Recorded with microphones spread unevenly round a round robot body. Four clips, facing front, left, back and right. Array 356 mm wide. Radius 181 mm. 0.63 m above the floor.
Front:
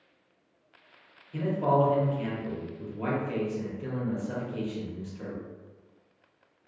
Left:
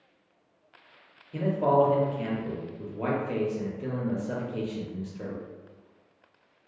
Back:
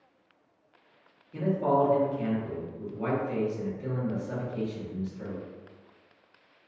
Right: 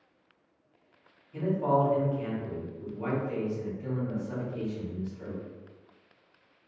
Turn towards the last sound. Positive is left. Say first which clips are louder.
# left 3 dB, even
turn(degrees=90)